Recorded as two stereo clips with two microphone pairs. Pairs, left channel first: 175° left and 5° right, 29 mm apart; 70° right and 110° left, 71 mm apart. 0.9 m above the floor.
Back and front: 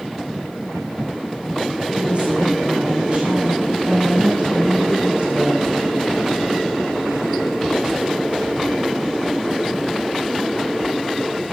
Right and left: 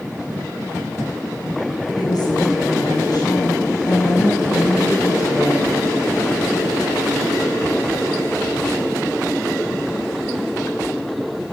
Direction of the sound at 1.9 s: 50° right.